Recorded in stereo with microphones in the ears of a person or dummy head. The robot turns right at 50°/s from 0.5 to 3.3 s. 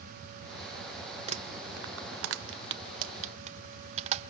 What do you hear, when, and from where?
1.3 s crumpling: 40° right (ahead or behind), 0.8 m